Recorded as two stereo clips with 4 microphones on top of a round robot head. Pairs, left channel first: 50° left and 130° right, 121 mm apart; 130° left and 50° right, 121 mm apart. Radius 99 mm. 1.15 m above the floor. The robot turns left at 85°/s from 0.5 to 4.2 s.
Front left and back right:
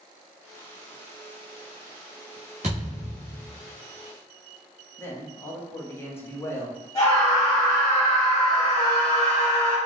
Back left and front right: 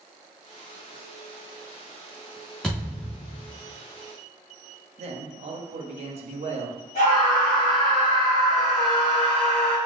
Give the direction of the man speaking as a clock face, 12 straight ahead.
1 o'clock.